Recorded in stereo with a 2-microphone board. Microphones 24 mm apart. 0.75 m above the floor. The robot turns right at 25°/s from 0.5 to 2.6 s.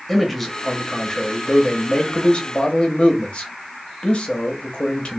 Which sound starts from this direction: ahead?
A man speaking, at 0.1 s.